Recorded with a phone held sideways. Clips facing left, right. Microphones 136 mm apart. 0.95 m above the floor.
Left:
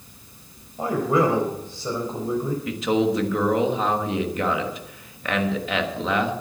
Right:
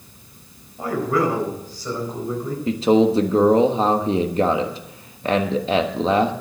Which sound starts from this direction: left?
A man speaking, at 0.8 s.